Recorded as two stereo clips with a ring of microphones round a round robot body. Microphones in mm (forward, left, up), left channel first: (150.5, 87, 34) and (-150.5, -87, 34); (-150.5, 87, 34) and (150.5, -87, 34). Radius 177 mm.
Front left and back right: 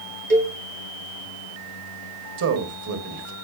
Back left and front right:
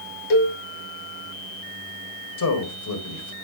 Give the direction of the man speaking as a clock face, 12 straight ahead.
6 o'clock.